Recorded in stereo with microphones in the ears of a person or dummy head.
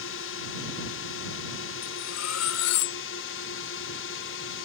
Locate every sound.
0.0 s a drone: 65° left (ahead or behind)
1.8 s cutlery clinking: 80° left